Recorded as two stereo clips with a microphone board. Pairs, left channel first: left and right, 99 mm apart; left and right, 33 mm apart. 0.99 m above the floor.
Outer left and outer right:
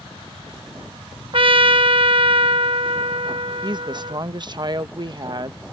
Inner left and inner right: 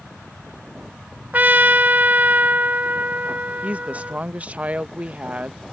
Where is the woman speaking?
50° right (ahead or behind).